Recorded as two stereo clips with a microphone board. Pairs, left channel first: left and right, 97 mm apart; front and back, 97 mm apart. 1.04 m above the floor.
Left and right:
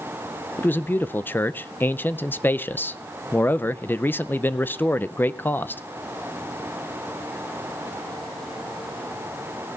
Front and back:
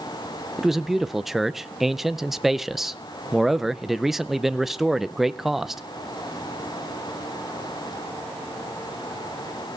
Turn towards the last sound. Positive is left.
turn(degrees=95)